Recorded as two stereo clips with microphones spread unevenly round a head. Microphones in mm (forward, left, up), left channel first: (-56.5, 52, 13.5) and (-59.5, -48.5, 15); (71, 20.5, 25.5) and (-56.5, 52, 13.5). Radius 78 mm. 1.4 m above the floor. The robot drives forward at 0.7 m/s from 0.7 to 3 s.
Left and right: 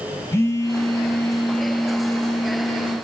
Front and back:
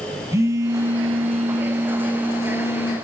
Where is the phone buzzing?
115° left, 0.8 m; by 2.9 s 170° left, 1.9 m.